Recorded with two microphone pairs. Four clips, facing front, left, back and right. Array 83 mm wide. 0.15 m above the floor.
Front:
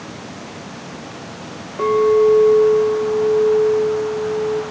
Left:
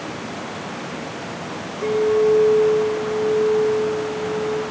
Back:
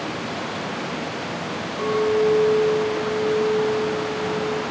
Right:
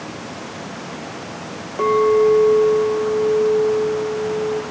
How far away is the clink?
About 7 m.